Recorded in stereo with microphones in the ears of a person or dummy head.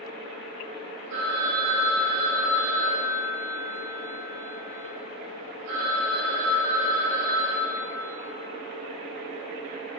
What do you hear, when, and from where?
1.1 s a phone ringing: 65° right (ahead or behind), 3.5 m